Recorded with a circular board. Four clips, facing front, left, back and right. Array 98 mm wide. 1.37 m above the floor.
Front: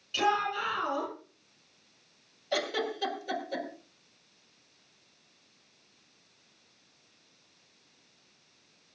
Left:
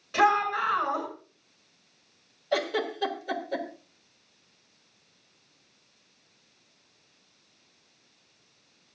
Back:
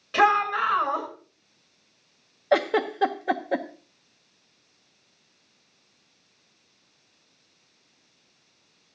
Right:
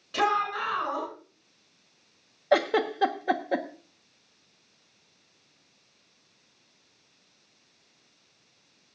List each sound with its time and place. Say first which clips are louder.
0.1 s a shout: left 3 dB, back 8 dB; 175° left, 8.5 m
2.5 s a giggle: right 5 dB, back 9 dB; 145° right, 1.4 m